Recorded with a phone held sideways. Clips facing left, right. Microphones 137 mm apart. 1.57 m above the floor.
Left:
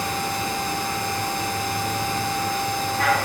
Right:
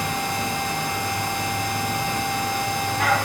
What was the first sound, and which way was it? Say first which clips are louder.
A machine running: even; 15° right (ahead or behind).